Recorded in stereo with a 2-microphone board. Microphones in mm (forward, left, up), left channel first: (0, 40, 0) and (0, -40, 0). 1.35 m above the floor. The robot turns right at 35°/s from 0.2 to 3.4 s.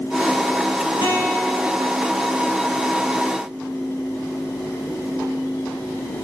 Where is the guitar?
105° left, 6 m; by 1.9 s 135° left, 6 m.